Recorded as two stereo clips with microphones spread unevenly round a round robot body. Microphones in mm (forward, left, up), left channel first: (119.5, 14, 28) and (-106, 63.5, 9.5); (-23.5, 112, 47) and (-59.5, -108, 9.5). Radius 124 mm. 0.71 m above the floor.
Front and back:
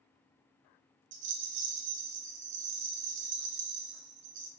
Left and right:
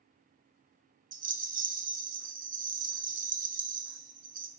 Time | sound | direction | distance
1.1 | a rattle | 150° right | 0.9 m